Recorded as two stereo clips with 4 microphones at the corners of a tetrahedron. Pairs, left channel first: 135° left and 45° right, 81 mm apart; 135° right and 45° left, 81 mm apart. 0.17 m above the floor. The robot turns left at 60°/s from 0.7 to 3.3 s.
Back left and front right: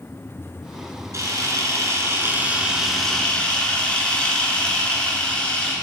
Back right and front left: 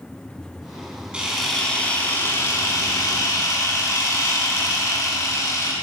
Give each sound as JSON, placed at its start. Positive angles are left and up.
{"t": 1.1, "sound": "a camera shutter", "azimuth_deg": -25, "distance_m": 1.3}